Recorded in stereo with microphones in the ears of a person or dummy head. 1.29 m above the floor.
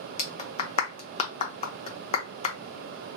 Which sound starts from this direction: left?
A clap, at 0.2 s.